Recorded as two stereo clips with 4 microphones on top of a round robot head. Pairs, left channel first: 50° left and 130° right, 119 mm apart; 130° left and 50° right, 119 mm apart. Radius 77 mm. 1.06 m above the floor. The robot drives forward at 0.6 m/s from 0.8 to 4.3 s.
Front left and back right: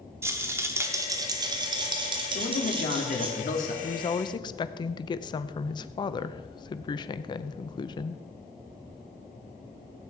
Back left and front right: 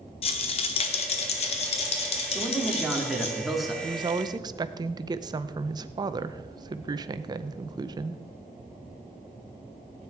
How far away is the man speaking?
About 3.5 m.